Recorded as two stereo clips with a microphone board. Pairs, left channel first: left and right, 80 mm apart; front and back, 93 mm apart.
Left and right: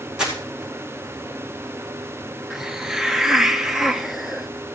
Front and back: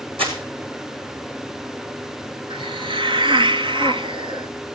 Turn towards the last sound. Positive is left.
turn(degrees=-175)